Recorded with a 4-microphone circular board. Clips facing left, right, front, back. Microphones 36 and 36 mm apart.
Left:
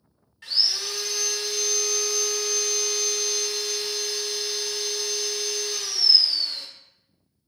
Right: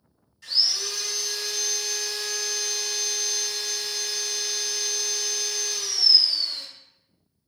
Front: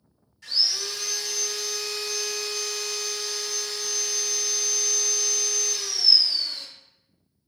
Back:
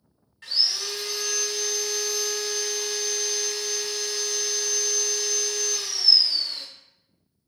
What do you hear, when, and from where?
0.4 s sawing: 140° left, 1.2 m